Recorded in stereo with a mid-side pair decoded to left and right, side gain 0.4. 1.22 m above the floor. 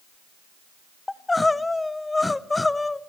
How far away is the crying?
About 0.6 m.